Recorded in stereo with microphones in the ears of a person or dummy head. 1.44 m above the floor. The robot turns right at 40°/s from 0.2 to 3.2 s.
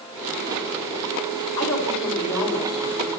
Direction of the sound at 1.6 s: 160° left.